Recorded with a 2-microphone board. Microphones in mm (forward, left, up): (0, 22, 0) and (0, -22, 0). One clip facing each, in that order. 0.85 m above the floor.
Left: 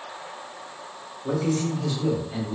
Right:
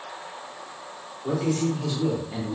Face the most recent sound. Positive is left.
turn(degrees=-15)  # may be behind; listen again after turning